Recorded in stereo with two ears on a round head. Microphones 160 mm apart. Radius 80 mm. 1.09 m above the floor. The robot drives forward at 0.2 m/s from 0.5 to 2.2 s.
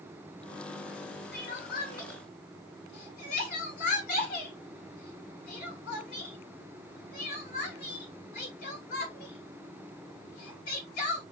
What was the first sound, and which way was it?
Crying, 60° left (ahead or behind).